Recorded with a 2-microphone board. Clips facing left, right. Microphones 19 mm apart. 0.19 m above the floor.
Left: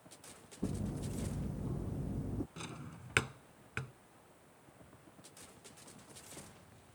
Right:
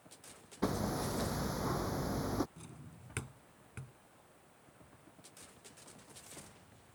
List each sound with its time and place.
0.6 s hammering: 80° right
2.6 s a drawer: 50° left (ahead or behind)